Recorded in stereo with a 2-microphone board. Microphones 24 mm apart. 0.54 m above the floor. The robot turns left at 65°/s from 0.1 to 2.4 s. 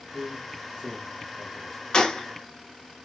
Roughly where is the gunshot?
Left.